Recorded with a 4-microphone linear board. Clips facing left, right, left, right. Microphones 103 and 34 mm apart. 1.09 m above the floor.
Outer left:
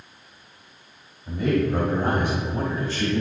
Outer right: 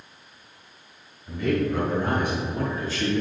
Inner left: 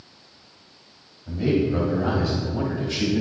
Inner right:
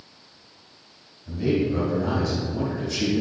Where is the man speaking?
45° left (ahead or behind), 1.6 m; by 3.2 s 55° left (ahead or behind), 2.5 m.